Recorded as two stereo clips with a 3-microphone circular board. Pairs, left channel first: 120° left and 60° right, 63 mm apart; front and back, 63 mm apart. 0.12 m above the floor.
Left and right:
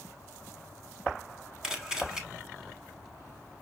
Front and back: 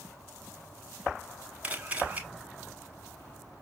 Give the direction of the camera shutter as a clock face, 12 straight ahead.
5 o'clock.